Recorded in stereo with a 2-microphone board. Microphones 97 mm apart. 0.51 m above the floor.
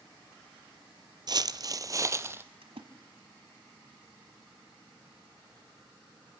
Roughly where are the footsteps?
Right.